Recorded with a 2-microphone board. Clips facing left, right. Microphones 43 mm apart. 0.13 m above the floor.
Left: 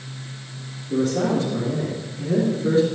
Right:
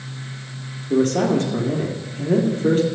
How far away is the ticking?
I don't hear ticking.